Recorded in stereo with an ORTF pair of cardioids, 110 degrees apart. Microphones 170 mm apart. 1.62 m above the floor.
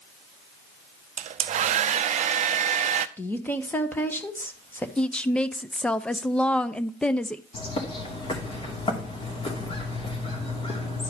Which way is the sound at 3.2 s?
10° left.